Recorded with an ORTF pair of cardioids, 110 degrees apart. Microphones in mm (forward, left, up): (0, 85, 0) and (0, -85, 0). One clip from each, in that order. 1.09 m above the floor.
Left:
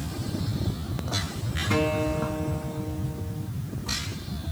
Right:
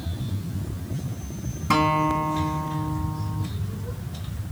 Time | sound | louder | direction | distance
1.7 | a guitar | right 6 dB | 65° right | 2.5 m